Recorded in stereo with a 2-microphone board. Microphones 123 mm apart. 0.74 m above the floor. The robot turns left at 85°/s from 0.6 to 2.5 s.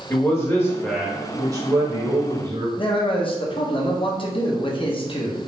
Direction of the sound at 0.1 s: 35° left.